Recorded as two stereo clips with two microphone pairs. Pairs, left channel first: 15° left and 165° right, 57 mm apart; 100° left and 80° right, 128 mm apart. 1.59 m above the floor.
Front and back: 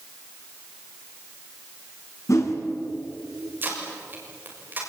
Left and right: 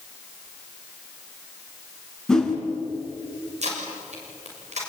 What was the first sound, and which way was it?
A whoosh, 20° left.